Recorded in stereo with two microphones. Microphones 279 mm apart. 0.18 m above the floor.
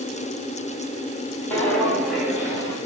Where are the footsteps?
10° left (ahead or behind), 3 m; by 2.8 s 15° right (ahead or behind), 3 m.